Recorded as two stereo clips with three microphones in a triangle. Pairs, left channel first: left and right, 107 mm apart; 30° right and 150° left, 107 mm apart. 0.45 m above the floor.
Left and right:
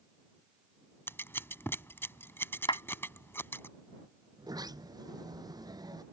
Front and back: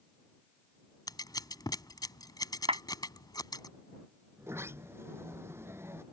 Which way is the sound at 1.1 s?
20° left.